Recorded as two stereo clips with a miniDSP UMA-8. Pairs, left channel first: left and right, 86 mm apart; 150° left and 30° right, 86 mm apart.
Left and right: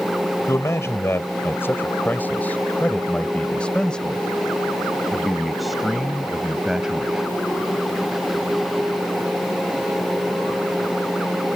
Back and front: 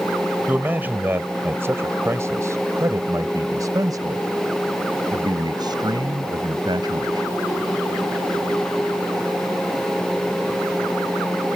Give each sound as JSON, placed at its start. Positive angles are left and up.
{"t": 0.5, "sound": "a man speaking", "azimuth_deg": 35}